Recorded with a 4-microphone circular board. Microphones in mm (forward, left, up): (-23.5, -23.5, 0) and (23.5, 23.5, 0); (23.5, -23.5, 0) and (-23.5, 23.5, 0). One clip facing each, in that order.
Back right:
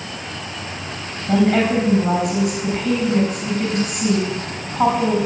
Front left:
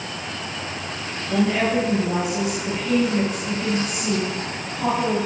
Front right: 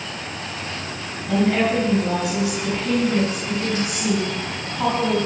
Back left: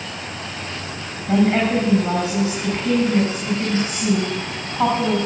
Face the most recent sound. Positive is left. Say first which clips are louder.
# back right 4 dB, back left 2 dB
turn(degrees=-165)